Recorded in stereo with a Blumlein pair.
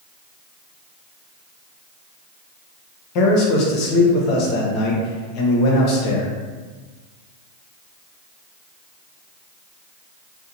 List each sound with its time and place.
3.1 s a man speaking: 40° left, 0.6 m